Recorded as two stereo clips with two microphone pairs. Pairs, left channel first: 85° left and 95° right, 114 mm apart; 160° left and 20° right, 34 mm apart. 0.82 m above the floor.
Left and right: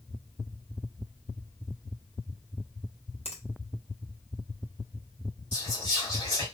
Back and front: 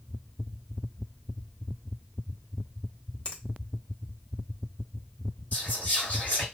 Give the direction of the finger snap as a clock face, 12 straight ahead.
9 o'clock.